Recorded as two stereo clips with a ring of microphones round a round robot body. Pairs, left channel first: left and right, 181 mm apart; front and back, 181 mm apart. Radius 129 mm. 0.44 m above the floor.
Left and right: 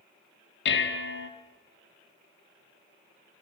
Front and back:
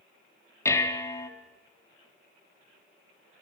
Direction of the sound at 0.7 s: 75° left.